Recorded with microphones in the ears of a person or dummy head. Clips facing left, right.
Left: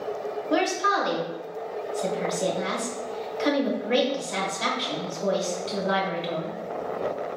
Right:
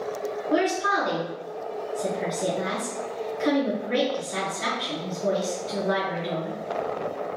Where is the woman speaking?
50° left (ahead or behind), 1.1 m.